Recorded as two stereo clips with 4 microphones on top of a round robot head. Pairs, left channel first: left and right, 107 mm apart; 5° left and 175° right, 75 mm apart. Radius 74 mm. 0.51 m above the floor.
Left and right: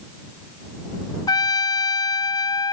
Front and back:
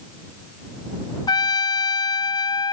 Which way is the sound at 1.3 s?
35° left.